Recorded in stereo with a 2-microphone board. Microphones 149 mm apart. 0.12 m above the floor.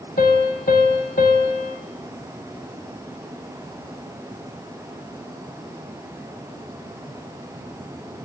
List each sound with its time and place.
0.2 s a piano: 80° left, 0.8 m